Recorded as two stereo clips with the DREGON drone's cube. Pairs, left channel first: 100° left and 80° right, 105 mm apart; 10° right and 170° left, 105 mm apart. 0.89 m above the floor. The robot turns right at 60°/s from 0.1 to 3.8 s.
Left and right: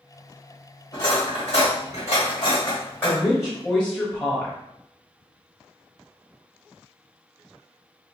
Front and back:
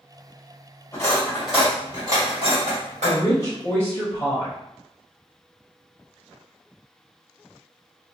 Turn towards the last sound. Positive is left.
turn(degrees=25)